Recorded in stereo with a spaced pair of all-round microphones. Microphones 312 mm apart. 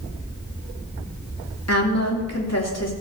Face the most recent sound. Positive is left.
turn(degrees=55)  # may be behind; listen again after turning